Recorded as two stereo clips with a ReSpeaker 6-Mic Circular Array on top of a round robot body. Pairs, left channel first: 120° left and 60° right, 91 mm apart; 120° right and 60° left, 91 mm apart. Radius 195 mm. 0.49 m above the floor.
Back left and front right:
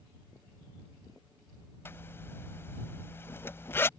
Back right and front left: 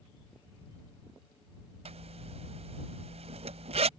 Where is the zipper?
50° left.